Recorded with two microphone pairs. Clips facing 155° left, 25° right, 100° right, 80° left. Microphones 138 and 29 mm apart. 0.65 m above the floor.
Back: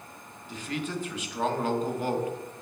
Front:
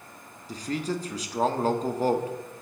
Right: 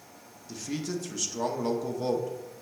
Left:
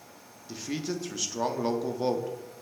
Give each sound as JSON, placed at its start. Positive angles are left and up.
{"t": 0.5, "sound": "a man speaking", "azimuth_deg": 15, "distance_m": 0.7}